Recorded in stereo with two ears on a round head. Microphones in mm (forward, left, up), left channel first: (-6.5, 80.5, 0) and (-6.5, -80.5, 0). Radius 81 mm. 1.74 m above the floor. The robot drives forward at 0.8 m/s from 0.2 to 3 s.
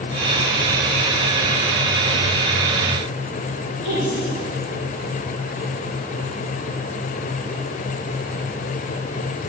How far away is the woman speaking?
About 3.5 m.